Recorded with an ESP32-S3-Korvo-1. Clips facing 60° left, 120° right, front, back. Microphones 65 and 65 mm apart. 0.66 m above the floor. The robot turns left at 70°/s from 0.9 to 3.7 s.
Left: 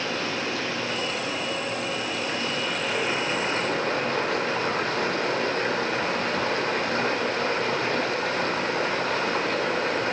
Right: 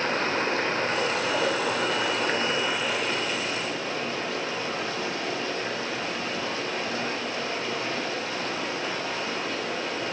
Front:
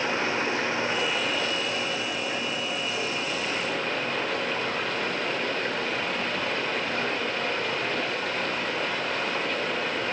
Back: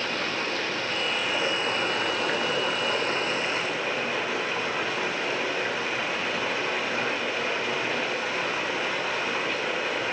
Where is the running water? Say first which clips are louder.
Right 3 dB, front 3 dB; 70° right, 1.3 m; by 10.1 s 95° left, 1.3 m.